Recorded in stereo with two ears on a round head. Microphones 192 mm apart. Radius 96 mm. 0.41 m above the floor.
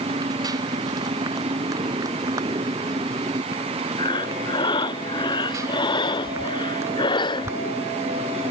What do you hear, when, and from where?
0.0 s a motorcycle: 20° right (ahead or behind); by 8.5 s 10° right (ahead or behind)
4.0 s breathing: 20° left (ahead or behind)